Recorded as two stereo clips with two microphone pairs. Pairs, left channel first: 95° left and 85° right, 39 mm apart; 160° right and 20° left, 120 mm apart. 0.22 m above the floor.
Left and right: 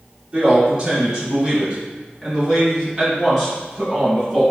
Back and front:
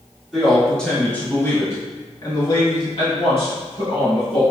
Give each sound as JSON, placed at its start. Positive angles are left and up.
{"t": 0.3, "sound": "a man speaking", "azimuth_deg": -55, "distance_m": 1.1}